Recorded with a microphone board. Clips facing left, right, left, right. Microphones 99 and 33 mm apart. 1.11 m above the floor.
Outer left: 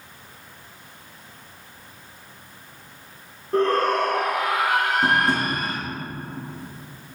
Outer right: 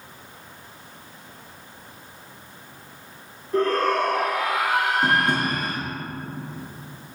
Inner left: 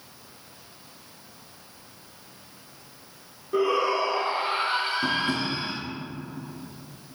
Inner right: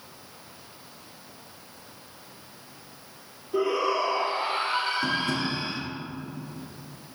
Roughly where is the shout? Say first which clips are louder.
Outer left 1 dB, inner left 2 dB; left.